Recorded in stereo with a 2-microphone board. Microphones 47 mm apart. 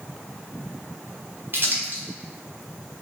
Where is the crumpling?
45° right (ahead or behind), 1.2 m.